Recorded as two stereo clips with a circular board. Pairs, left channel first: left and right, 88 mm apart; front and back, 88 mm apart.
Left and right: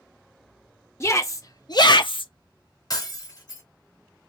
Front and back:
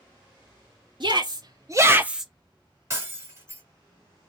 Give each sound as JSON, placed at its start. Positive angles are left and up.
{"t": 1.0, "sound": "a shout", "azimuth_deg": 150, "distance_m": 1.3}
{"t": 2.9, "sound": "breaking glass", "azimuth_deg": 125, "distance_m": 1.3}